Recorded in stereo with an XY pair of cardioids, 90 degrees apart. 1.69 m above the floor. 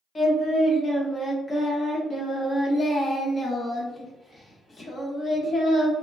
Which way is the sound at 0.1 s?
35° left.